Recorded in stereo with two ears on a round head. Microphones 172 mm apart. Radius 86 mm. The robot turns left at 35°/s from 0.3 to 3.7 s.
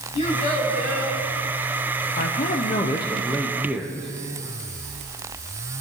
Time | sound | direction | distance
0.1 | a child speaking | 35° left (ahead or behind) | 5.5 m
2.2 | a man speaking | 50° left | 1.1 m